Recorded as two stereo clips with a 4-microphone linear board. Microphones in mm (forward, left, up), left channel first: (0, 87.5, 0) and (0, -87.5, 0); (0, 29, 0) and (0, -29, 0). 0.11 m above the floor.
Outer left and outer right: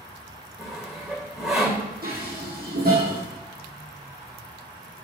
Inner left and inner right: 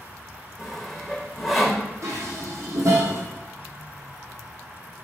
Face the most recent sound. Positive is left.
turn(degrees=-60)  # may be behind; listen again after turning